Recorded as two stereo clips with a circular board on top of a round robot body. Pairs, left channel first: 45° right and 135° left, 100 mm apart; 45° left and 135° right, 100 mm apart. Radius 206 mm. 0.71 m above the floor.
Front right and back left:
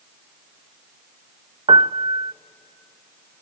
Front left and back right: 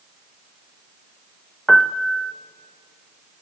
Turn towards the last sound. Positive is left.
turn(degrees=130)